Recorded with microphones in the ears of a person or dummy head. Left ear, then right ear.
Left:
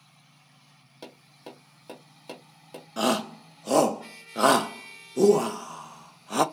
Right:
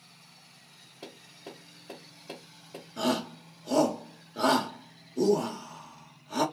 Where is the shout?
60° left (ahead or behind), 0.6 m.